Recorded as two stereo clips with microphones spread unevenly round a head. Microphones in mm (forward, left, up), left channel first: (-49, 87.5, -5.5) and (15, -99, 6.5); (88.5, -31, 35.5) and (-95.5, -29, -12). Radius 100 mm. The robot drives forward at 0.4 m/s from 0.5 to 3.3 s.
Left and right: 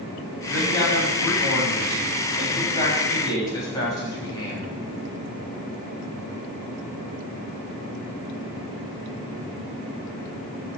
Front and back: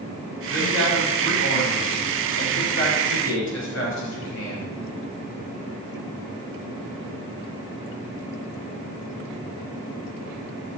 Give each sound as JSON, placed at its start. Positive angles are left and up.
{"t": 0.5, "sound": "a man speaking", "azimuth_deg": 30, "distance_m": 7.0}